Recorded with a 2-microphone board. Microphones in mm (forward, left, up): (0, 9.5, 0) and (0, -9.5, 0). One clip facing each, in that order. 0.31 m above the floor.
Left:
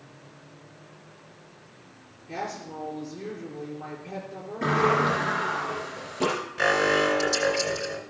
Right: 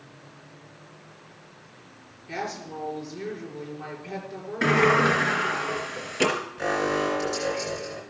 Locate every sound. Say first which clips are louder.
2.3 s a woman speaking: right 1 dB; 45° right (ahead or behind), 6.5 m
4.6 s a sliding door: right 3 dB; 55° right (ahead or behind), 3.5 m
6.6 s an alarm: left 5 dB; 40° left (ahead or behind), 2.5 m